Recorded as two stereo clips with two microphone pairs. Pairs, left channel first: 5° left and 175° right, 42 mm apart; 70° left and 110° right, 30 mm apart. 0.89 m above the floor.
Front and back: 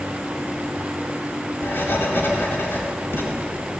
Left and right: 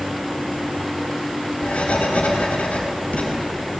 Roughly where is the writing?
Ahead left.